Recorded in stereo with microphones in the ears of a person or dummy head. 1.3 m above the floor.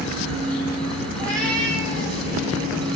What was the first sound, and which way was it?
A cat meowing, 5° left (ahead or behind).